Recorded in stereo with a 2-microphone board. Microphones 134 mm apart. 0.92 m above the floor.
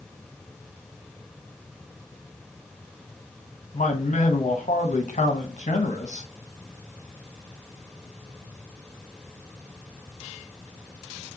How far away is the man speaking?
About 0.7 m.